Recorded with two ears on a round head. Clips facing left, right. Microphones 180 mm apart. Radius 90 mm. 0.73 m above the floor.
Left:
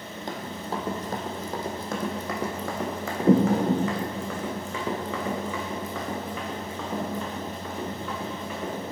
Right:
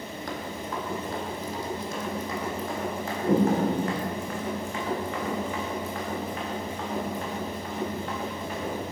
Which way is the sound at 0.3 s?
20° left (ahead or behind).